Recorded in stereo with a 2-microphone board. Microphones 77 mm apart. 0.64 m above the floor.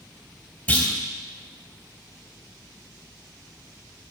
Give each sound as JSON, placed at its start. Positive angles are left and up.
{"t": 0.7, "sound": "a clunk", "side_deg": 15, "distance_m": 2.5}